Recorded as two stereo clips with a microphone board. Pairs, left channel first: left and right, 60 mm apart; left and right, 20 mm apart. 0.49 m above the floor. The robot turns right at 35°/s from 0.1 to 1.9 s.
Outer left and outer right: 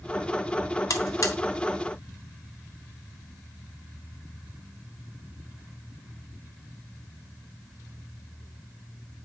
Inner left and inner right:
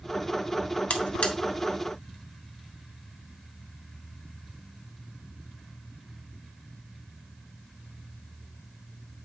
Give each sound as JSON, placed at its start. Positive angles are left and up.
{"t": 0.9, "sound": "a buzzer", "side_deg": 65, "distance_m": 1.2}